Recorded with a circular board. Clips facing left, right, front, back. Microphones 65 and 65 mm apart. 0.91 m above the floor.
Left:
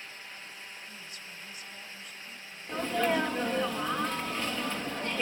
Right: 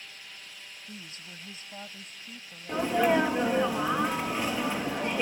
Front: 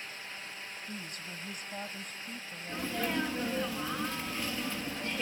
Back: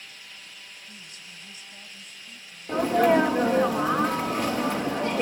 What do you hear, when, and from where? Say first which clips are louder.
0.9 s a woman speaking: right 1 dB, front 4 dB; 40° right
2.7 s a sneeze: right 4 dB, back 14 dB; 165° right